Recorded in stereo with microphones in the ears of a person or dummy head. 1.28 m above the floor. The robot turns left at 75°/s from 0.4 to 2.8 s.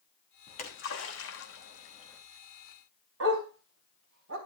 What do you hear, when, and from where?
0.5 s a splash: 35° left (ahead or behind), 3 m; by 2.2 s 15° left (ahead or behind), 3 m
3.2 s a dog barking: 75° right (ahead or behind), 3.5 m